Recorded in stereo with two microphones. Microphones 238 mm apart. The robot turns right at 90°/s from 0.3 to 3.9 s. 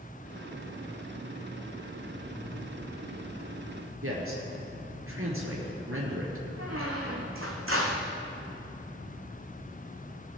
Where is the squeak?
65° right (ahead or behind), 1.9 m.